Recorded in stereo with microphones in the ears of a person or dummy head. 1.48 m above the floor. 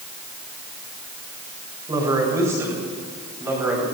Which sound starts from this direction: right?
A man speaking, at 1.9 s.